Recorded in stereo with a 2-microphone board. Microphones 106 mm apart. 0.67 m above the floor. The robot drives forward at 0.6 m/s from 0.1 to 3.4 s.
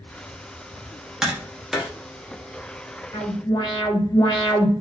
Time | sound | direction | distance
1.2 | tapping | 5° right (ahead or behind) | 0.8 m
3.1 | an alarm | 45° left (ahead or behind) | 2 m